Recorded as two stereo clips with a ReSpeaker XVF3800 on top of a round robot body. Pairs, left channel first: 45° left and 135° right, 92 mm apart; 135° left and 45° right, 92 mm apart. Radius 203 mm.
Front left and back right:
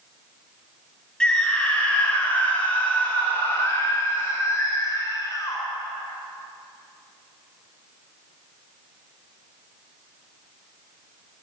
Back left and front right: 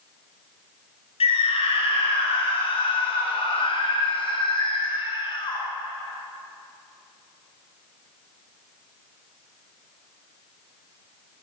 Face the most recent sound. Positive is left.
turn(degrees=100)